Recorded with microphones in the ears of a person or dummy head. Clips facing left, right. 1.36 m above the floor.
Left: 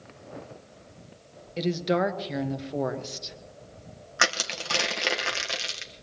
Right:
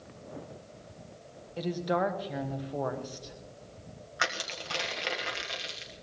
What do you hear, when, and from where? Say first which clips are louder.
1.6 s a woman speaking: left 4 dB; 25° left (ahead or behind), 1.4 m
4.2 s crushing: left 6 dB; 60° left (ahead or behind), 1.4 m